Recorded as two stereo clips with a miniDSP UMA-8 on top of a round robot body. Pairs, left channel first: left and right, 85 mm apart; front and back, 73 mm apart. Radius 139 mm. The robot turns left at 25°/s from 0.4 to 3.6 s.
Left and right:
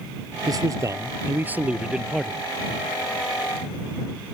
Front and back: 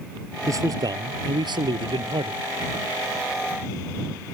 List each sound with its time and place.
0.5 s a man speaking: 135° right; by 2.4 s 175° left